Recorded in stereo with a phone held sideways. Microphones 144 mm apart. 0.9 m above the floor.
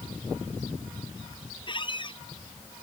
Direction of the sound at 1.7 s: 35° left (ahead or behind).